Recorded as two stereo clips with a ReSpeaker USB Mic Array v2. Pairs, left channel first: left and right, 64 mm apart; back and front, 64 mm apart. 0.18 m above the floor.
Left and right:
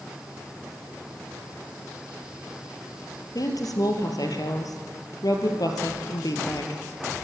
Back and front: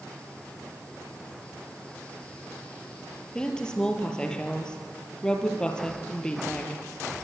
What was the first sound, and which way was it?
A woman speaking, 100° left.